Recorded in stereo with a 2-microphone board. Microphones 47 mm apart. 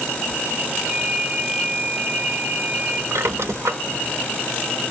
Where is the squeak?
65° right (ahead or behind), 0.6 m.